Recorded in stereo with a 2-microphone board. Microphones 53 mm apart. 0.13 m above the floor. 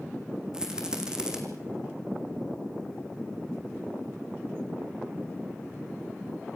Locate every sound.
0.5 s a rattle: 15° right (ahead or behind), 4 m